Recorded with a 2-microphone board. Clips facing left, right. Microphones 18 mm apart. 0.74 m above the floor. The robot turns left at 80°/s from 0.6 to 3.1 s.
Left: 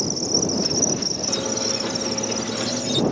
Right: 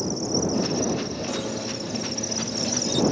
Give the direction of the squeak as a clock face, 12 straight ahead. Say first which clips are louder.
Left 5 dB; 7 o'clock.